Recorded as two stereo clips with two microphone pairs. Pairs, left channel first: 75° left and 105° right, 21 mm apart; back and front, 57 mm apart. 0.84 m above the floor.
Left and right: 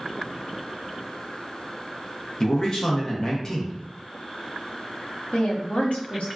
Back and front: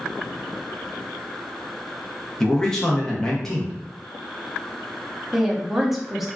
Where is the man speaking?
105° left, 0.8 m.